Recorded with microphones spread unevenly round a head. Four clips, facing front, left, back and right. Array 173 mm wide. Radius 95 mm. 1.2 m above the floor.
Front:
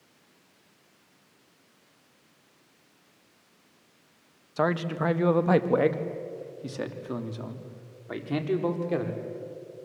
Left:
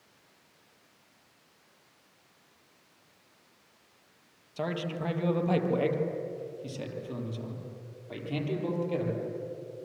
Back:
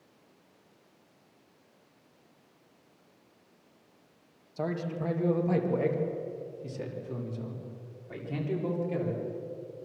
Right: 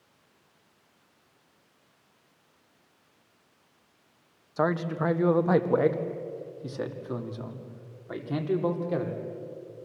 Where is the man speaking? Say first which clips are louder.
Right 7 dB, front 6 dB; 25° right, 1.2 m; by 9.2 s 20° right, 3.5 m.